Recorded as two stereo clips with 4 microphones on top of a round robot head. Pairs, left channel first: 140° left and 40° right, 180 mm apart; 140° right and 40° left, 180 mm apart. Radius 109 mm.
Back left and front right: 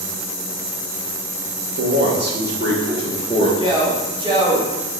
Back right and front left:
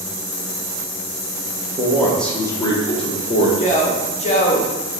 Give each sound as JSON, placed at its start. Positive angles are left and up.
{"t": 1.8, "sound": "a man speaking", "azimuth_deg": -40, "distance_m": 1.1}
{"t": 3.6, "sound": "a man speaking", "azimuth_deg": -100, "distance_m": 1.3}